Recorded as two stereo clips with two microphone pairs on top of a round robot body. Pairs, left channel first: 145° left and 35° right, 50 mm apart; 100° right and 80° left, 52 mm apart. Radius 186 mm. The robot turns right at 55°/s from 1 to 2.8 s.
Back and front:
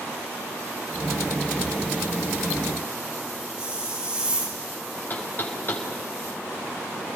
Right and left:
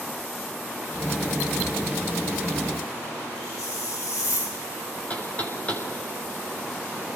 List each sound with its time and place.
3.6 s a hiss: 110° right, 8 m
5.1 s knocking: 165° right, 6 m